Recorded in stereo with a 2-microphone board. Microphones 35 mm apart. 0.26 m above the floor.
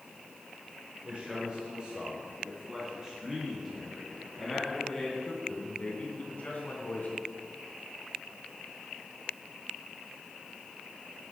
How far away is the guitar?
I don't hear a guitar.